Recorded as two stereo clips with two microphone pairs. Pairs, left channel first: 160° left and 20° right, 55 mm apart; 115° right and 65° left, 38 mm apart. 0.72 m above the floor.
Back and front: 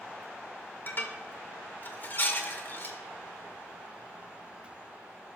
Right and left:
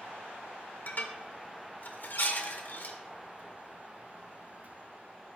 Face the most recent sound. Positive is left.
turn(degrees=-150)